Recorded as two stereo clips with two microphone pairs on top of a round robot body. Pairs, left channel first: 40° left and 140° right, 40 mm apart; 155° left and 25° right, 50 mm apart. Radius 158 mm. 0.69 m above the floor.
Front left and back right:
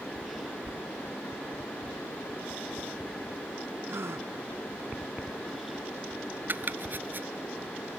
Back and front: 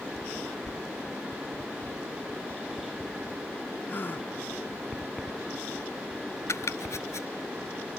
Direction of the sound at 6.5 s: Straight behind.